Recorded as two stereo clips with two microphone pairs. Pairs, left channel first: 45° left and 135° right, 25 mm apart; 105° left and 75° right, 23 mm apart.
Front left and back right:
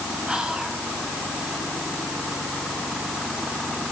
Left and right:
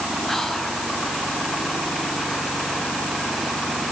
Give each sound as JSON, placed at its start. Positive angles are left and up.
{"t": 0.3, "sound": "whispering", "azimuth_deg": 175, "distance_m": 2.5}